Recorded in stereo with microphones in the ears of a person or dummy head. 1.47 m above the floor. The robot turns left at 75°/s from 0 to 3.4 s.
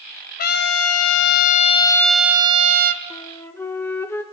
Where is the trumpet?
135° left, 0.6 m; by 3.0 s 65° right, 0.6 m.